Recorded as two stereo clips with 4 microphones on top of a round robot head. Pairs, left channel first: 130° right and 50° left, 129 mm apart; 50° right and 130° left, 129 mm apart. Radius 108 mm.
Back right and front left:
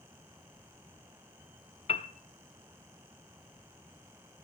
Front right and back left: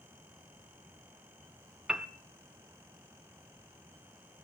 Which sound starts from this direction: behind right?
A piano, at 1.9 s.